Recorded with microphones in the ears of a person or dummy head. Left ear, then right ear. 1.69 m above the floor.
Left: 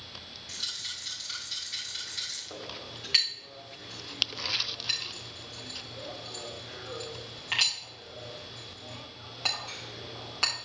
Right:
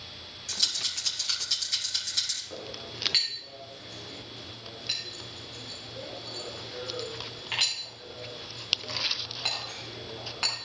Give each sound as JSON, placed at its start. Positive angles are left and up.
{"t": 0.5, "sound": "a rattle", "side_deg": -55, "distance_m": 3.5}
{"t": 2.5, "sound": "a clink", "side_deg": 20, "distance_m": 3.0}